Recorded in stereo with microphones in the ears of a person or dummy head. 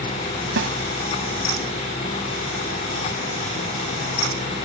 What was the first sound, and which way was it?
A snare drum, 60° right (ahead or behind).